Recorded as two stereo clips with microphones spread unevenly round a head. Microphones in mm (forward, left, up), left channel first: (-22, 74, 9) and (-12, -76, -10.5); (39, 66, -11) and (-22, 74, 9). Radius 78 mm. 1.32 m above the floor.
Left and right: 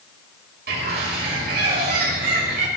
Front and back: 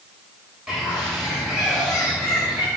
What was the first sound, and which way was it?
A bird, 100° right.